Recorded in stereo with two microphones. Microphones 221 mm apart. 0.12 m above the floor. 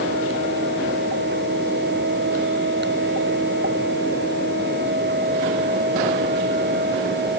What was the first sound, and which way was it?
Only background noise.